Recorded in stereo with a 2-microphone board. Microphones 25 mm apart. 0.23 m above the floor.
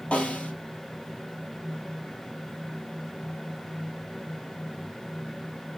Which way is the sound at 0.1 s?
60° left (ahead or behind).